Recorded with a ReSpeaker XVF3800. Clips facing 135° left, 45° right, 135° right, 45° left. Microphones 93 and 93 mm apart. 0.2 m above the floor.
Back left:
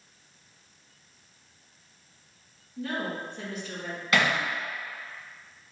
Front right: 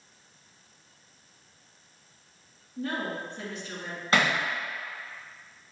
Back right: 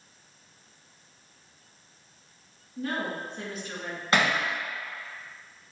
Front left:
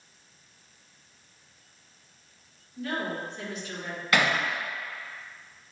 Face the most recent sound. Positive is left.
turn(degrees=-85)